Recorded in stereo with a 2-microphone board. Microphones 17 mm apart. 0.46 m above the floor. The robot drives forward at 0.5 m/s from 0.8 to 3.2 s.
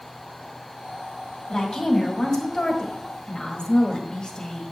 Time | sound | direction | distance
1.5 | a woman speaking | 35° left (ahead or behind) | 2.5 m